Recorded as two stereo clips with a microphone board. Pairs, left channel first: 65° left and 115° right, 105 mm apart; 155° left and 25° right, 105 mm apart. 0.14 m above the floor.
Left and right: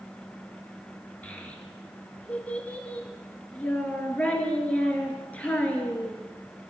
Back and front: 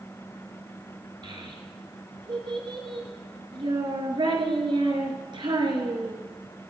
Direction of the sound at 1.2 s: 5° right.